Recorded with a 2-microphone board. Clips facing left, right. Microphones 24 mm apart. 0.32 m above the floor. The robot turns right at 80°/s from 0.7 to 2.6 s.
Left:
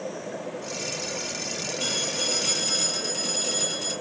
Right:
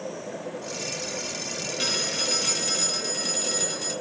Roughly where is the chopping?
I don't hear chopping.